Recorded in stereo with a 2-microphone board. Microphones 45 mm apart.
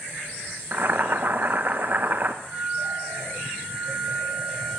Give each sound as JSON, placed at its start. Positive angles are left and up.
{"t": 0.7, "sound": "boiling", "side_deg": -45, "distance_m": 0.7}
{"t": 2.4, "sound": "a flute", "side_deg": 5, "distance_m": 8.0}